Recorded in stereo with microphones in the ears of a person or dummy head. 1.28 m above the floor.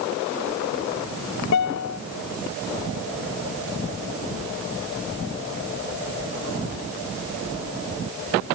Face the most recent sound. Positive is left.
turn(degrees=80)